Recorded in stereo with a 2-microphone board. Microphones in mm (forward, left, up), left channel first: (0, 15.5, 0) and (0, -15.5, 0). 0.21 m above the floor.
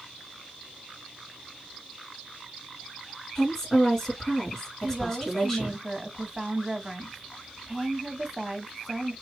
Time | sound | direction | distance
3.4 | a woman speaking | 10° left (ahead or behind) | 2.5 m
4.8 | a woman speaking | 15° right (ahead or behind) | 1.2 m